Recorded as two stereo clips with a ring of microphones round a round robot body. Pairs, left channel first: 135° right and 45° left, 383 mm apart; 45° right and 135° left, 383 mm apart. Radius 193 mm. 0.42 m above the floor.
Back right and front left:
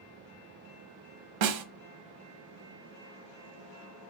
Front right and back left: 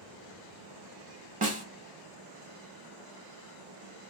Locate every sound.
1.4 s a snare drum: 65° left, 0.9 m